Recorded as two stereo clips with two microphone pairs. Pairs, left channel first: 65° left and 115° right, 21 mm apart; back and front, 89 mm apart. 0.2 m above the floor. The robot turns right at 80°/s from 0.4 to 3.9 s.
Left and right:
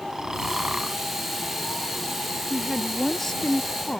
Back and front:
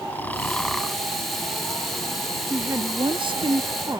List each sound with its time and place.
0.1 s snoring: 125° right; by 1.0 s 75° right
2.5 s a woman speaking: 65° right; by 4.0 s 45° left